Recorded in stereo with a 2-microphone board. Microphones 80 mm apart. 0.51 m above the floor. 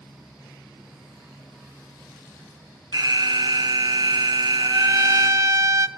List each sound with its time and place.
2.9 s an alarm: 60° right (ahead or behind), 0.6 m
4.6 s a trumpet: 45° right (ahead or behind), 0.9 m